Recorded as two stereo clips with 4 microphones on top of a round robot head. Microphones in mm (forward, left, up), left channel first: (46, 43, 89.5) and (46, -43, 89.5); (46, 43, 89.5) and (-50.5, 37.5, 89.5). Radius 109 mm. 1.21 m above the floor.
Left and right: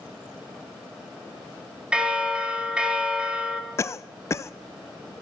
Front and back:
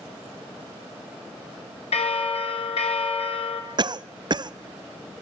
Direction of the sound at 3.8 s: 145° left.